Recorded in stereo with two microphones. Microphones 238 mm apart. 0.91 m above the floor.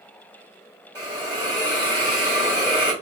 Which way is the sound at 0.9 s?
15° right (ahead or behind).